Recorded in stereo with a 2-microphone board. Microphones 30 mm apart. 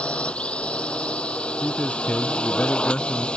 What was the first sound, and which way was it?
A drone, 40° left (ahead or behind).